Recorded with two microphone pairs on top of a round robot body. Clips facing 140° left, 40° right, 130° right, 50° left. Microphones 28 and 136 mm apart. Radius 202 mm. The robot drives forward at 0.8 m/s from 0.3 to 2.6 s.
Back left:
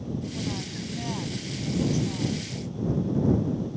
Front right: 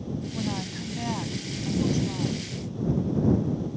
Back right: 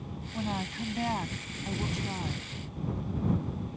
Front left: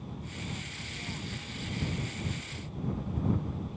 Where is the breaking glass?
I don't hear breaking glass.